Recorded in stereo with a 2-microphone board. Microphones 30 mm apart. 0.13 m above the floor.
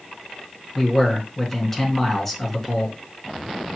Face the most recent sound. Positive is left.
turn(degrees=10)  # may be behind; listen again after turning